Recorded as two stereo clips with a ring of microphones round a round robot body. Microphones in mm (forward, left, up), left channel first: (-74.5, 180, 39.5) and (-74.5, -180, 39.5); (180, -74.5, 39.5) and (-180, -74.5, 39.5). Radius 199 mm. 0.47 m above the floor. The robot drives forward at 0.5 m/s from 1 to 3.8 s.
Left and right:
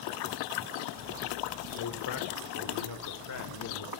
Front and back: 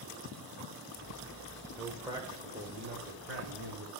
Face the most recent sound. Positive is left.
turn(degrees=130)